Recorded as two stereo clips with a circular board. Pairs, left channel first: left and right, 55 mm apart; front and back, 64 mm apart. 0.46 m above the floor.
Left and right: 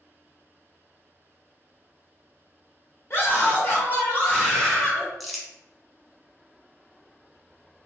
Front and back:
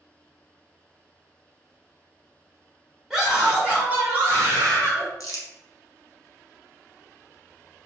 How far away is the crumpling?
About 0.6 m.